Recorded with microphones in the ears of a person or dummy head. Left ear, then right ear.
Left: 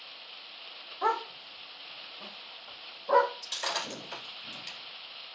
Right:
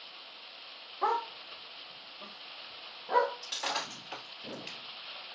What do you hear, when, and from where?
1.0 s a dog barking: 10° left (ahead or behind), 1.1 m; by 3.3 s 30° left (ahead or behind), 1.1 m
3.4 s breaking glass: 10° left (ahead or behind), 1.7 m